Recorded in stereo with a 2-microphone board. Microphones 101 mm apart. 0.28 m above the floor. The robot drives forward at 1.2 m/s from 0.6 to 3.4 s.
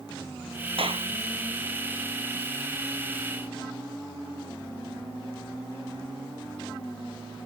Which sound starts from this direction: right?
A clap, at 0.8 s.